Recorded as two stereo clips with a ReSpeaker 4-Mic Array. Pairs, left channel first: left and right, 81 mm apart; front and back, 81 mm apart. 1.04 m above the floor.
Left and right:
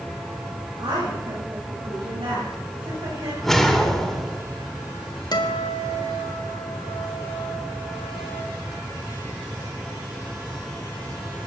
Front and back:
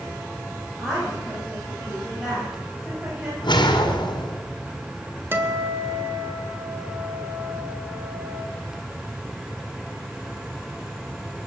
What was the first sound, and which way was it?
A woman speaking, 95° right.